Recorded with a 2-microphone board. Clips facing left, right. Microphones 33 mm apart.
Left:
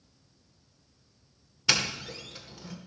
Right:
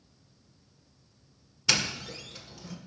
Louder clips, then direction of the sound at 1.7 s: Left 1 dB; 10° left (ahead or behind).